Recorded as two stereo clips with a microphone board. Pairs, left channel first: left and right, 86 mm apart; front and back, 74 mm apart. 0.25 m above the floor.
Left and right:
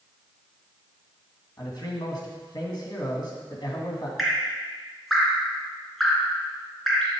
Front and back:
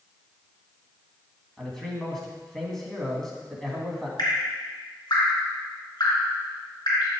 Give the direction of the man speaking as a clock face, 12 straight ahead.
9 o'clock.